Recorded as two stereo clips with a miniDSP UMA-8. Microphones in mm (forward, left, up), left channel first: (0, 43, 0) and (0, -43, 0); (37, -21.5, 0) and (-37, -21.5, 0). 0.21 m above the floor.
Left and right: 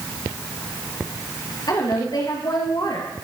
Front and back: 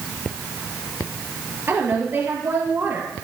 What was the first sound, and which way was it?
A woman speaking, 120° left.